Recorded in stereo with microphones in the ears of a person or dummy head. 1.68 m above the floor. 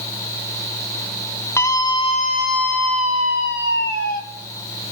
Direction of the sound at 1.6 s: 10° left (ahead or behind).